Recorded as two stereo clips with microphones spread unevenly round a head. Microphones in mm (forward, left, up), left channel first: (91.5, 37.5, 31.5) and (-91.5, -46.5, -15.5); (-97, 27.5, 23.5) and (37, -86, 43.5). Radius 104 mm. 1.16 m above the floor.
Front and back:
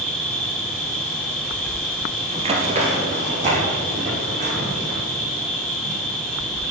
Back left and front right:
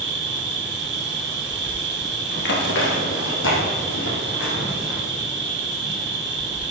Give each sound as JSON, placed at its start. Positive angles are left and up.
{"t": 0.0, "sound": "an insect", "azimuth_deg": -60, "distance_m": 2.5}
{"t": 2.3, "sound": "running footsteps", "azimuth_deg": 135, "distance_m": 1.5}